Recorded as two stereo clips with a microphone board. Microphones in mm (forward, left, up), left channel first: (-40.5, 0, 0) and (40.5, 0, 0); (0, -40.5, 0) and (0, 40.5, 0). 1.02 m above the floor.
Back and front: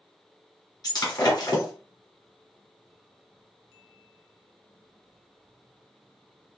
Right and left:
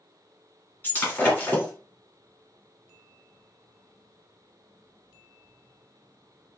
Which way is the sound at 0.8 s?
155° right.